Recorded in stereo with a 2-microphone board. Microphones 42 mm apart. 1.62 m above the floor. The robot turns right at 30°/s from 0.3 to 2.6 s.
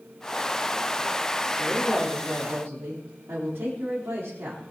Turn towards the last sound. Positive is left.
turn(degrees=-80)